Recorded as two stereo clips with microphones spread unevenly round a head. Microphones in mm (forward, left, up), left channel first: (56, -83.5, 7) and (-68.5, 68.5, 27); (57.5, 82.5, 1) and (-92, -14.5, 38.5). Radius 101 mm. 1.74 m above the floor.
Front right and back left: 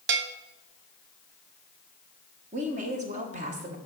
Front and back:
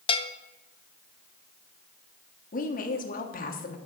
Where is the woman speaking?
80° left, 1.3 m.